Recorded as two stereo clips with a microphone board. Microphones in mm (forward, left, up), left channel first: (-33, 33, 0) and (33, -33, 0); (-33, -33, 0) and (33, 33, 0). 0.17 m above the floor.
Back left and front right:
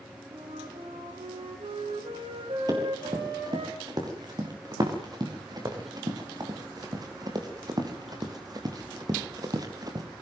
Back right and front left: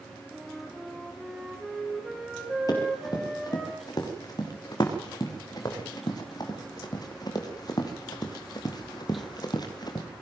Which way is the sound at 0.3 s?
45° right.